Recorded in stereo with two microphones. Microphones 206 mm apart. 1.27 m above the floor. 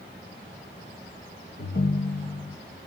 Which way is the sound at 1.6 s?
65° left (ahead or behind).